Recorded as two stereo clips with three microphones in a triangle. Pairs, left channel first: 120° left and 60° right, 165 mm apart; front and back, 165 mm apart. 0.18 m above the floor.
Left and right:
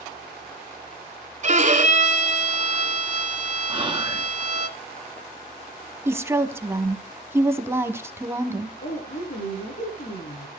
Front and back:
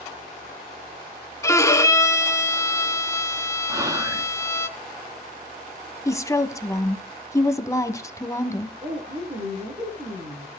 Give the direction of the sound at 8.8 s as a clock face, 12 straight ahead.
8 o'clock.